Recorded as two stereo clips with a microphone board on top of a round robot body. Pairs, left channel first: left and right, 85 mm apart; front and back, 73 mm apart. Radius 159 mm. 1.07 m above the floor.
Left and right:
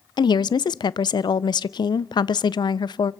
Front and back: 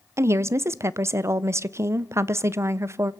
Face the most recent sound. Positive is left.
turn(degrees=125)